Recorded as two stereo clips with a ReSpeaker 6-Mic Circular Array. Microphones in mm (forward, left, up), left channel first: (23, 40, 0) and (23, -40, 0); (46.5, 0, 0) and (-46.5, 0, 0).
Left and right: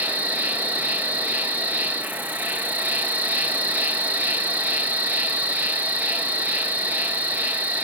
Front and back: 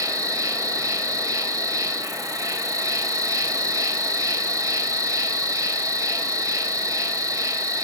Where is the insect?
150° right, 1.9 m.